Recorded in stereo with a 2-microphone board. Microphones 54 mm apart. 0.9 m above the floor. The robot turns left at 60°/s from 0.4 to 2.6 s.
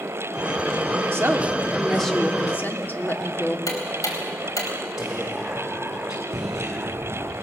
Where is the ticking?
85° left, 4 m.